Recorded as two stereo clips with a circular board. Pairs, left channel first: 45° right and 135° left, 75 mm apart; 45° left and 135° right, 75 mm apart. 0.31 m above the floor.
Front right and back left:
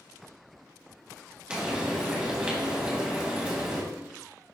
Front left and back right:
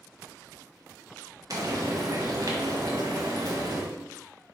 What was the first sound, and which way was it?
Frying, 155° right.